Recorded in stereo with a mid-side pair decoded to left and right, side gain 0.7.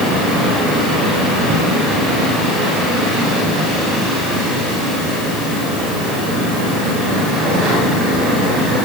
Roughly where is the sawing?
No sawing in this recording.